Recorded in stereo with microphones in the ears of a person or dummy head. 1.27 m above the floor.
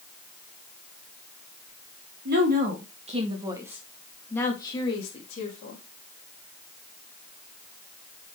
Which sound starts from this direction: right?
A woman speaking, at 2.2 s.